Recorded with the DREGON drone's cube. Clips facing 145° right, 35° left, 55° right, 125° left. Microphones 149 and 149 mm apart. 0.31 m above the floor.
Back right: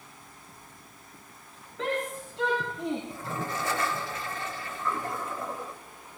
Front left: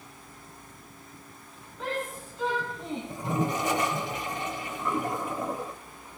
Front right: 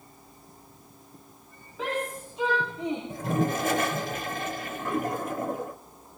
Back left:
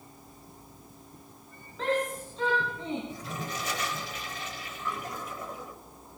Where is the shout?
135° right, 9 m; by 3.0 s 130° right, 8 m.